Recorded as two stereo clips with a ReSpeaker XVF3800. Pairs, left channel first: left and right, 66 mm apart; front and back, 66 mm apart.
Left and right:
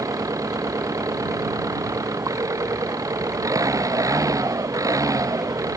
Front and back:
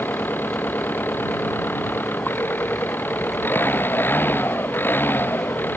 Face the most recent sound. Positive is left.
turn(degrees=-60)